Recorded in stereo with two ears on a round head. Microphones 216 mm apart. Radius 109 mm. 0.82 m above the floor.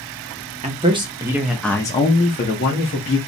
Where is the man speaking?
25° right (ahead or behind), 0.8 m; by 3.2 s 45° left (ahead or behind), 0.9 m.